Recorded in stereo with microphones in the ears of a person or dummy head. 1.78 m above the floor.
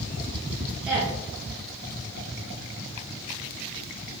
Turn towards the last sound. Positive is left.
turn(degrees=-10)  # may be behind; listen again after turning